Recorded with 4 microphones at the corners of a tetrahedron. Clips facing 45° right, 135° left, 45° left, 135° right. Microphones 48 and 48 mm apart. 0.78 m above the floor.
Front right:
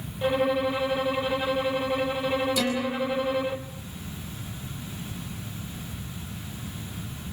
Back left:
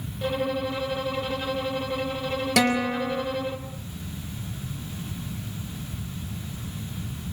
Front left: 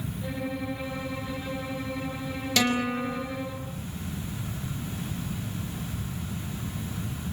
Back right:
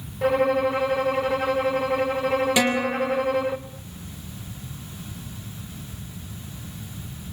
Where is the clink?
I don't hear a clink.